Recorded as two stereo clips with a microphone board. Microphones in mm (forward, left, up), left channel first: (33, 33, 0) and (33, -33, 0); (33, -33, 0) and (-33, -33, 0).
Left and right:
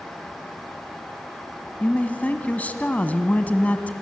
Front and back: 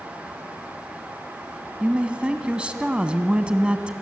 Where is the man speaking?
125° left, 1.1 m.